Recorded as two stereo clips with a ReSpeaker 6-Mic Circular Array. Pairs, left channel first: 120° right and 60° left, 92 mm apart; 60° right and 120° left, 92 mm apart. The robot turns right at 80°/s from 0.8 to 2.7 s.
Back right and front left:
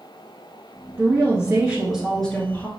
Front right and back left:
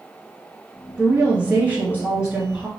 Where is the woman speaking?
65° left, 1.2 m; by 2.7 s 160° right, 1.2 m.